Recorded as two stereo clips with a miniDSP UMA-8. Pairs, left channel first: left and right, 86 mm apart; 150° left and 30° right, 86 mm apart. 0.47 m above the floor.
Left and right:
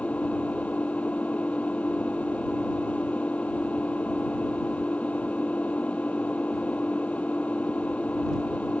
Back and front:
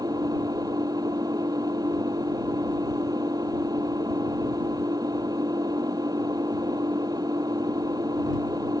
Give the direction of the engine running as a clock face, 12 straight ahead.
11 o'clock.